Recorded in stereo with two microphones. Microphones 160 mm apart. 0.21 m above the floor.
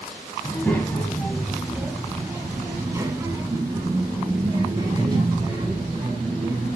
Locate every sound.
0.4 s a child speaking: 15° left (ahead or behind), 1.3 m; by 6.8 s 25° right (ahead or behind), 4 m